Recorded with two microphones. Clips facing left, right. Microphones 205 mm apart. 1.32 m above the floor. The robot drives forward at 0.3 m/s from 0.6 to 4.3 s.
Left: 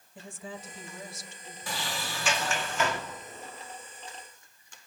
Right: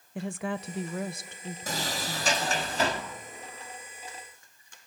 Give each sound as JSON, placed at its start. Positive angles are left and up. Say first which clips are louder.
{"t": 0.1, "sound": "a woman speaking", "louder": "right 10 dB", "side_deg": -70, "distance_m": 0.7}
{"t": 1.7, "sound": "a sliding door", "louder": "right 2 dB", "side_deg": -45, "distance_m": 1.7}